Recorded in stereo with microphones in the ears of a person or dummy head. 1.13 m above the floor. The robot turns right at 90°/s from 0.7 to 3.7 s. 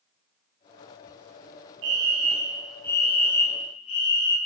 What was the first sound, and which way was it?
A fire alarm, 80° right.